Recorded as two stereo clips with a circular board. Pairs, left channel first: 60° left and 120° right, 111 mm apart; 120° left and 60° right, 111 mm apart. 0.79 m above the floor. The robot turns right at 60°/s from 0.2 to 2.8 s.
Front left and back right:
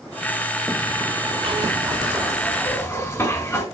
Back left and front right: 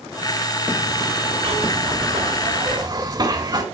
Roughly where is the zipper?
Right.